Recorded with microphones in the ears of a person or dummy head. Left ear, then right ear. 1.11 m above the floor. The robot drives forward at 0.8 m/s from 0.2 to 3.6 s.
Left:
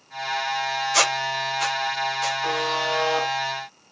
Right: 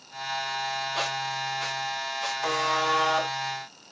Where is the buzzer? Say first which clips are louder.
Right 3 dB; 55° right (ahead or behind), 2.5 m; by 3.3 s 45° right (ahead or behind), 3 m.